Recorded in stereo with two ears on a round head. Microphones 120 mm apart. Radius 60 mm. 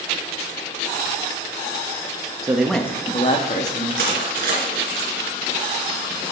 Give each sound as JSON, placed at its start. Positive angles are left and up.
{"t": 2.4, "sound": "a man speaking", "side_deg": -25, "distance_m": 0.8}
{"t": 4.0, "sound": "crushing", "side_deg": -85, "distance_m": 3.0}